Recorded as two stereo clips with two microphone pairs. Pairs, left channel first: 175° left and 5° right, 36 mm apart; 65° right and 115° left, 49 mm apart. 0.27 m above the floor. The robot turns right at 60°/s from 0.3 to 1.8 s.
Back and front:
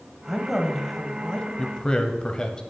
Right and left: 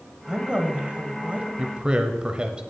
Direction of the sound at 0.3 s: 65° left.